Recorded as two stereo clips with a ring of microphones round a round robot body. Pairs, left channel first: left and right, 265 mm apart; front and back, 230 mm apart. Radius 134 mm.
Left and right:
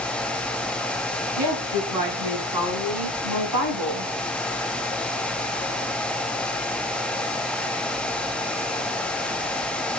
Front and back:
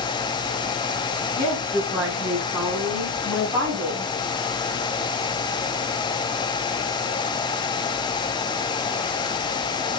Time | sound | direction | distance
1.4 | a woman speaking | 95° right | 6.5 m